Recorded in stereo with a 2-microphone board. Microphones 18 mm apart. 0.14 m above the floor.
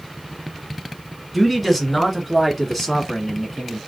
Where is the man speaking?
Centre (ahead or behind), 1.7 m; by 3.8 s 10° left (ahead or behind), 1.8 m.